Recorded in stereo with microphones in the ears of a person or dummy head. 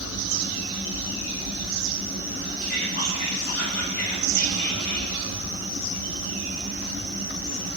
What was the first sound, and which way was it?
Whispering, 50° left (ahead or behind).